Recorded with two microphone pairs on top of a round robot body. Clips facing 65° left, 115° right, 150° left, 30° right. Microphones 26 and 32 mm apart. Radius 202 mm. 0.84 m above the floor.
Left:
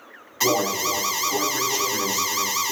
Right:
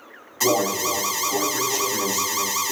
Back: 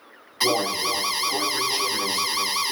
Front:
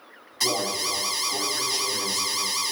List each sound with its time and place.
0.4 s an alarm: 115° left, 1.6 m